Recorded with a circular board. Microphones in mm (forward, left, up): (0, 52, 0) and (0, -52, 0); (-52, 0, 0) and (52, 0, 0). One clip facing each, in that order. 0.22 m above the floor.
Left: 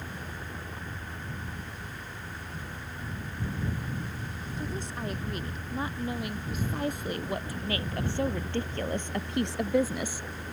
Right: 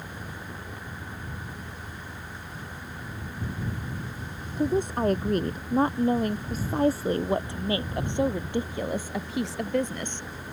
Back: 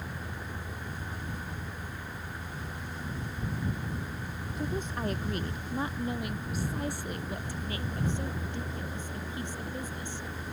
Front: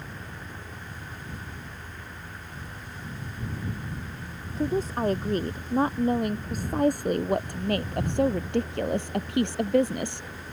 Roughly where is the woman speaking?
Ahead right.